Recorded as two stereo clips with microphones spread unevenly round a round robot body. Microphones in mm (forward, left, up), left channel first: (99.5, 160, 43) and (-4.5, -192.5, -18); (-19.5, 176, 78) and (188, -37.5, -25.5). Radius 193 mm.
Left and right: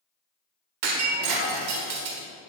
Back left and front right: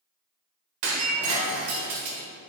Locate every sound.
0.8 s breaking glass: 80° right, 1.1 m